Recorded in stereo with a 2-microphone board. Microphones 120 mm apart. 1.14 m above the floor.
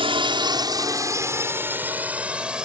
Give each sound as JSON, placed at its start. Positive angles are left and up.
{"t": 0.0, "sound": "a drone", "side_deg": -50}